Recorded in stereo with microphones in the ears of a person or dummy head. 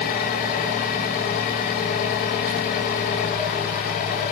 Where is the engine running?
50° left (ahead or behind), 1.9 m.